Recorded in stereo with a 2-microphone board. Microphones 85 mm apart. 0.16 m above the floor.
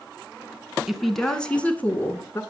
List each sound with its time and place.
0.9 s a woman speaking: 5° right (ahead or behind), 1.6 m; by 2.4 s 30° left (ahead or behind), 1.9 m